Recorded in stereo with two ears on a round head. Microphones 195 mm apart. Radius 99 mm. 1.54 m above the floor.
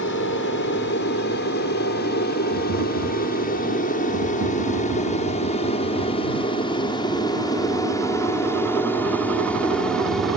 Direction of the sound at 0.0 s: 55° left (ahead or behind).